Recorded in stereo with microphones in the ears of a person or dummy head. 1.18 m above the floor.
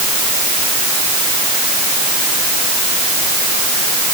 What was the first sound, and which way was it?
Only background noise.